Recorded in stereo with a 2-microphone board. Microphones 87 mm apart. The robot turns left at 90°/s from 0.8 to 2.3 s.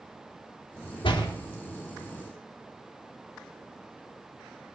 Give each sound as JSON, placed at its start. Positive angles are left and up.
{"t": 1.0, "sound": "a door slam", "side_deg": 85, "distance_m": 2.0}